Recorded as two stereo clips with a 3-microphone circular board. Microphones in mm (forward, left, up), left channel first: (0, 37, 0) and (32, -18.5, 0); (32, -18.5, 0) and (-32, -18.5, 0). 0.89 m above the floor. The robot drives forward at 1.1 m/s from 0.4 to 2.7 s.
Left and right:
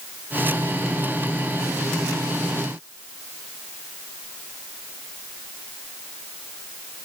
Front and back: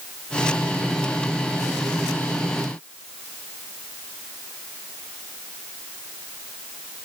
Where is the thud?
I don't hear a thud.